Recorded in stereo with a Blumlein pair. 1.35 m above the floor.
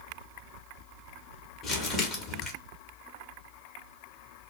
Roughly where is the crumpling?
Ahead left.